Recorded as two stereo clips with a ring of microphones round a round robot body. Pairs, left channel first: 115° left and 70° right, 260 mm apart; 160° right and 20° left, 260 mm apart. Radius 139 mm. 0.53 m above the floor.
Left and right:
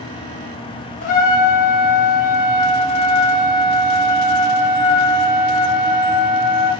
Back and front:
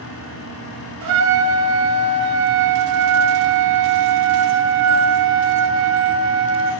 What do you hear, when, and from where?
1.0 s a trumpet: 50° left, 0.7 m